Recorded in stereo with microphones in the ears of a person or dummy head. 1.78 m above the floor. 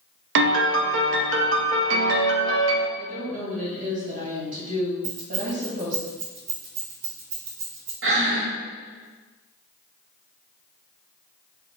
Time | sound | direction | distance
0.3 | a piano | 75° right (ahead or behind) | 0.6 m
3.0 | a woman speaking | 45° right (ahead or behind) | 1.9 m
5.0 | keys jangling | 45° right (ahead or behind) | 1.8 m
8.0 | breathing | 75° right (ahead or behind) | 1.0 m